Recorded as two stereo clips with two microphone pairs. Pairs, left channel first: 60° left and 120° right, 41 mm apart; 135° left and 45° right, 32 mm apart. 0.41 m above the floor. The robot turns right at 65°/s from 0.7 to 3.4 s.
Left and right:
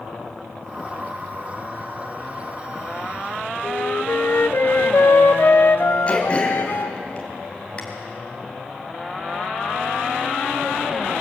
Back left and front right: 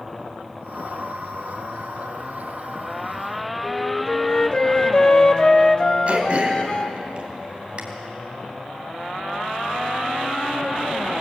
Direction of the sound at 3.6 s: 70° left.